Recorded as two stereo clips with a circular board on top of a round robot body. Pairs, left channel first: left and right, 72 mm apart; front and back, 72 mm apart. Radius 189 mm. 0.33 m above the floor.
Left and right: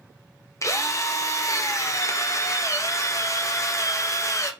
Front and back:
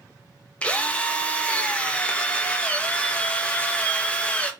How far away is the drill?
About 0.8 m.